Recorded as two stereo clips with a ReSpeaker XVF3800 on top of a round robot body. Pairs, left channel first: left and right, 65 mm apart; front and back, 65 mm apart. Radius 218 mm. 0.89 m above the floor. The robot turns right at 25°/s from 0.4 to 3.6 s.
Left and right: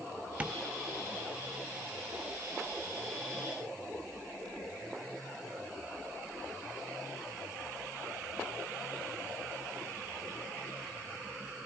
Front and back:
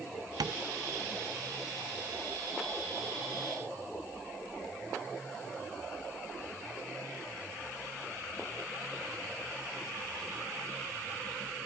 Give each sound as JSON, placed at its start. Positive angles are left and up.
{"t": 0.4, "sound": "tapping", "azimuth_deg": -160, "distance_m": 0.7}